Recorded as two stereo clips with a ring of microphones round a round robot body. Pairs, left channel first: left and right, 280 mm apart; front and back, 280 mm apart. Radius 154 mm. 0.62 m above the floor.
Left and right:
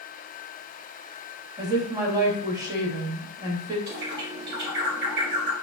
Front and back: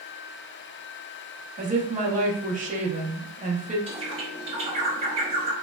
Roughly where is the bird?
Behind right.